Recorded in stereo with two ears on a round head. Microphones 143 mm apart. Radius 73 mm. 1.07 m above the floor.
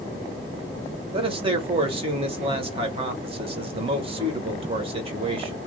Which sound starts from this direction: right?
A man speaking, at 1.1 s.